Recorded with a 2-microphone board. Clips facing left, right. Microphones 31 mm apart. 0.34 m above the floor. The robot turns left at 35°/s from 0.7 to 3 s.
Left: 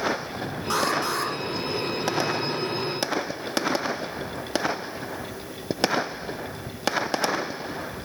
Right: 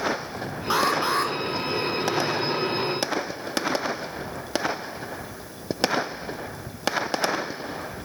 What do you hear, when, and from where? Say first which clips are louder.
0.7 s an alarm: right 3 dB; 20° right (ahead or behind), 3 m; by 1.3 s 40° right (ahead or behind), 3 m